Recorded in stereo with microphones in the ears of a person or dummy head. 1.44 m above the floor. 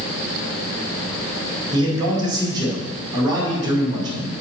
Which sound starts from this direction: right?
A man speaking, at 1.7 s.